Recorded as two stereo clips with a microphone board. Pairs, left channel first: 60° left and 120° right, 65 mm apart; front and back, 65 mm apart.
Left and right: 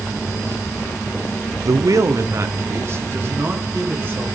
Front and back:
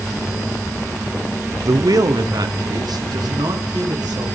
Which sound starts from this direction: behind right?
A man speaking, at 1.6 s.